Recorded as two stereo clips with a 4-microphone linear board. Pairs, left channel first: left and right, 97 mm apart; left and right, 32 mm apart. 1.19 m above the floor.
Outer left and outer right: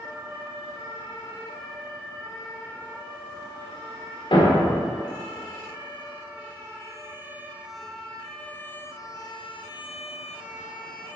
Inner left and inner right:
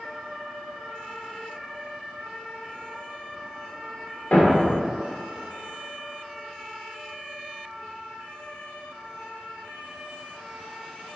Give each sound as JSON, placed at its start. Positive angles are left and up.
{"t": 4.3, "sound": "a thud", "side_deg": 60, "distance_m": 1.7}